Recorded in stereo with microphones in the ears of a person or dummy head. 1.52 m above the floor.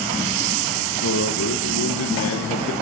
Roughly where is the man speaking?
Left.